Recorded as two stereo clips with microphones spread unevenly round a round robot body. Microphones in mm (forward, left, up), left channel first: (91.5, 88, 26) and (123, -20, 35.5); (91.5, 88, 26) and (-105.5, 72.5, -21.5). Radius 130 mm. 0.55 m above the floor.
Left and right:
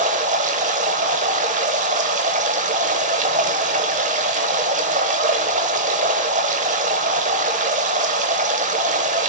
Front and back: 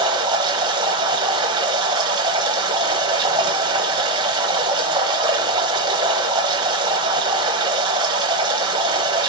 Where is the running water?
100° right, 1.0 m.